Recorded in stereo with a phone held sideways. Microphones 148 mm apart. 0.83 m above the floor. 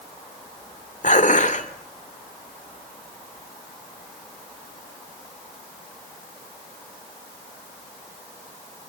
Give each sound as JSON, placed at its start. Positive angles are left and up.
{"t": 1.0, "sound": "dishes clattering", "side_deg": 60, "distance_m": 2.0}